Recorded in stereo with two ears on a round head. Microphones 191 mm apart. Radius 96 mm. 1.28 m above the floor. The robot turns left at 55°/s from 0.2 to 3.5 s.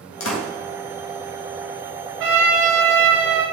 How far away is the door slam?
About 1.7 m.